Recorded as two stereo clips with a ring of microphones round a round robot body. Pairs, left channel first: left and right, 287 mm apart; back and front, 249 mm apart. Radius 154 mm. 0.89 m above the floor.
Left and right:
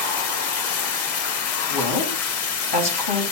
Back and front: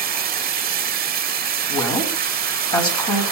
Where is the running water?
50° left, 1.1 m.